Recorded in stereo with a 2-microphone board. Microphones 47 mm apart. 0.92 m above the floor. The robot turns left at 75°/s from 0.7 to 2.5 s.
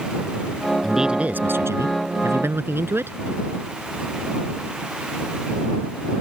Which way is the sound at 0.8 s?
Straight ahead.